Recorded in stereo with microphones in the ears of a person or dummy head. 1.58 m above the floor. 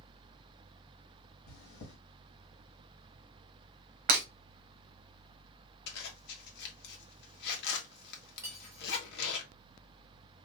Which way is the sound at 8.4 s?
15° right (ahead or behind).